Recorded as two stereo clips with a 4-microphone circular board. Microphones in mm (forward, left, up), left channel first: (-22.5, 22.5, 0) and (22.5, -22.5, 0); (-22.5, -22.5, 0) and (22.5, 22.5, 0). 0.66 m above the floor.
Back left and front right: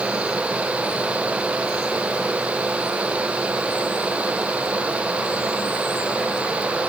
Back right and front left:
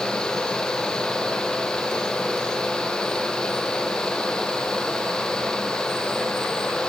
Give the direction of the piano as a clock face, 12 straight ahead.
I don't hear a piano.